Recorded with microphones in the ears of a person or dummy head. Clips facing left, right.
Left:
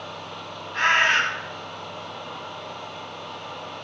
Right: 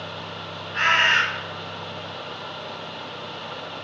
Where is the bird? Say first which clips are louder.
Even; 5° right (ahead or behind), 0.6 m.